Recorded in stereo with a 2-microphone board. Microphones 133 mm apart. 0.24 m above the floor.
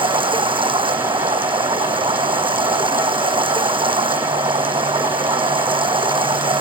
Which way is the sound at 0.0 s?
40° right (ahead or behind).